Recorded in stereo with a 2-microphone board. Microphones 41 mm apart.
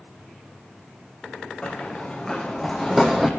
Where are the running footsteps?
20° left (ahead or behind), 2.5 m; by 3.3 s 10° right (ahead or behind), 1.7 m.